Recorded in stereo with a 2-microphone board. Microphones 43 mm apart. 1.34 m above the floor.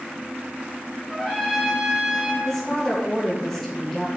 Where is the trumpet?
Centre (ahead or behind), 3 m.